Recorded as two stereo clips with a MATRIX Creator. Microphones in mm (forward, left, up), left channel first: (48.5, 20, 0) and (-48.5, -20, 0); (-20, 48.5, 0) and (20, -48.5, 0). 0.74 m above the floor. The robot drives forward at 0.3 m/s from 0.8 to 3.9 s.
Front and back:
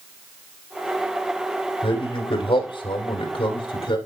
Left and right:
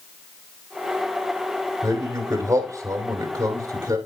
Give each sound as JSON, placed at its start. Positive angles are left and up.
{"t": 1.8, "sound": "a man speaking", "azimuth_deg": -5, "distance_m": 2.5}